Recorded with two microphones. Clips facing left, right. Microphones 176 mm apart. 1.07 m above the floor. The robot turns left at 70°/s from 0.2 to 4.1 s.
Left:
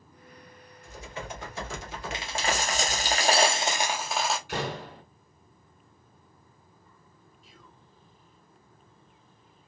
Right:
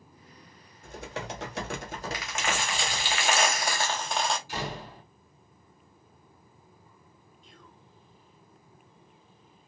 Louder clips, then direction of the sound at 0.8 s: Right 2 dB; 55° right.